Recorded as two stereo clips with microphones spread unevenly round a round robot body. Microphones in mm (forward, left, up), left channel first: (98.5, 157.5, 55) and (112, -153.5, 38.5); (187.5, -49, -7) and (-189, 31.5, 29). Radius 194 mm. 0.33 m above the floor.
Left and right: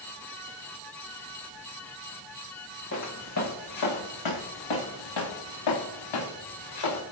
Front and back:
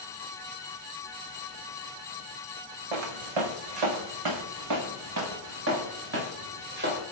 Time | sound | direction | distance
2.9 | footsteps | 150° left | 1.6 m